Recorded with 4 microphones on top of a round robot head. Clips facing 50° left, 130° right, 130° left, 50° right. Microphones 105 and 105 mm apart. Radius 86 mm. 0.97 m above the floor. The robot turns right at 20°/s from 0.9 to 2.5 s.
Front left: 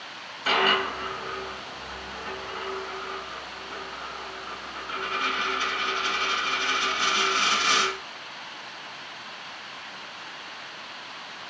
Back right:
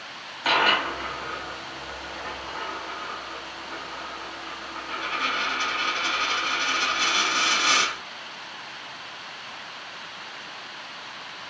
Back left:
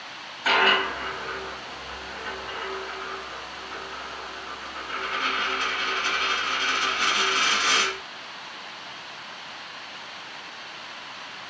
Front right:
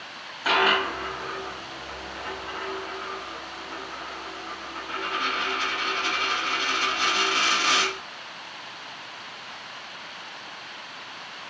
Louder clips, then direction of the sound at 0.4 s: Back right 1 dB, even; 135° right.